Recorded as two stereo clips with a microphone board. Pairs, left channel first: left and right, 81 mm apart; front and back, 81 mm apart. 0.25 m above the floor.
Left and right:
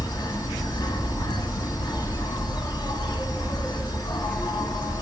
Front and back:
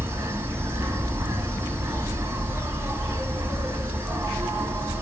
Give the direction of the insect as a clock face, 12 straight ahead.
8 o'clock.